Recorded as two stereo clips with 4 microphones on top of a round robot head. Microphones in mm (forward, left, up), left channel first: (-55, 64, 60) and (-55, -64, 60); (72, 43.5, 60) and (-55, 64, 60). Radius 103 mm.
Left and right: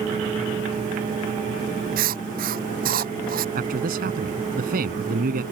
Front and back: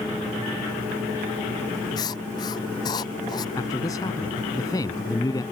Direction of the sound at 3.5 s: 80° right.